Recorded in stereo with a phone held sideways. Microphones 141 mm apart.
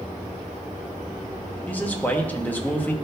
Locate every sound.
1.7 s a man speaking: 10° left (ahead or behind), 1.0 m